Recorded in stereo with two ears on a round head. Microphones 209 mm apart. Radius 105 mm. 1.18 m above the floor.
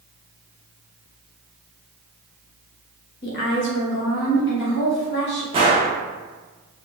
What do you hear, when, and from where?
3.2 s a woman speaking: 45° left (ahead or behind), 0.8 m; by 5.4 s 50° left (ahead or behind), 1.2 m
5.5 s a gunshot: 25° right (ahead or behind), 0.9 m